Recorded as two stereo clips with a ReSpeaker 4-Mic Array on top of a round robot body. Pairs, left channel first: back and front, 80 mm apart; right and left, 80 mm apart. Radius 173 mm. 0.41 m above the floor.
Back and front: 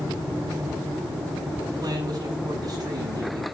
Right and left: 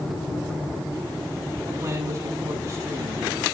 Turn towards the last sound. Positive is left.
turn(degrees=30)